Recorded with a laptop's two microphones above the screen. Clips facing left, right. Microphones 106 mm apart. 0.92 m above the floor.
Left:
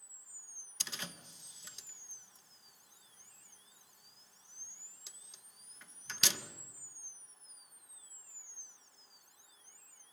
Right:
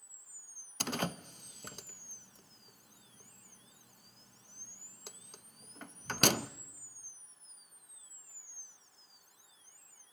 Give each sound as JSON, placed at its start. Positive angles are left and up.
{"t": 0.8, "sound": "a door slam", "side_deg": -55, "distance_m": 0.6}